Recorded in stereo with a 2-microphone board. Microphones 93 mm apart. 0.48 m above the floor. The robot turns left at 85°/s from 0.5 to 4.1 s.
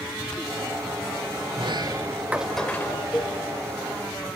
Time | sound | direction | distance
1.5 | a sliding door | 100° right | 1.5 m
3.1 | a cowbell | 20° left (ahead or behind) | 1.4 m